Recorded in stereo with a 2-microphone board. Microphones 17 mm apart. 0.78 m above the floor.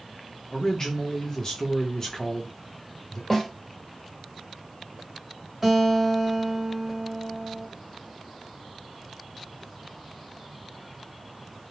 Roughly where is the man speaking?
Left.